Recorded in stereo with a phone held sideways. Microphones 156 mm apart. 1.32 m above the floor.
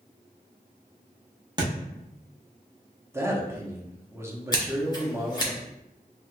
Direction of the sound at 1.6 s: 25° right (ahead or behind).